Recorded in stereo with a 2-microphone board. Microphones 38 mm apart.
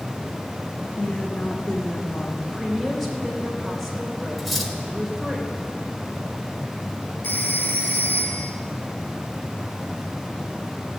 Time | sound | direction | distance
1.0 | a woman speaking | 45° left (ahead or behind) | 1.7 m
2.4 | a woman speaking | 10° left (ahead or behind) | 3 m
4.4 | cutlery clinking | centre (ahead or behind) | 1.7 m
7.2 | a phone ringing | 65° left (ahead or behind) | 3.5 m